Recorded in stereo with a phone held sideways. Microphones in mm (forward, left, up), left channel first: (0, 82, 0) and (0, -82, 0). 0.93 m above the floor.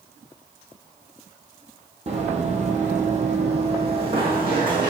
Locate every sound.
2.1 s running footsteps: 40° right (ahead or behind), 1.3 m; by 4.9 s 30° right (ahead or behind), 2.5 m